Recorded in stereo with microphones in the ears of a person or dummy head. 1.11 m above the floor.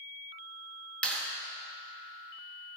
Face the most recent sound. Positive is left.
turn(degrees=5)  # may be behind; listen again after turning